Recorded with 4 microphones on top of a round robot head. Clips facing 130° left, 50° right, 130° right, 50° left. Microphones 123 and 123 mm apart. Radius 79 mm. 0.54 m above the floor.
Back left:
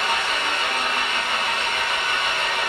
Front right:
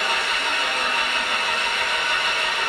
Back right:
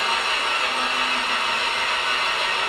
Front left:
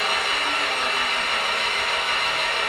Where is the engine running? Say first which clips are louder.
Back left 1 dB, back right 1 dB; 175° left, 1.4 m.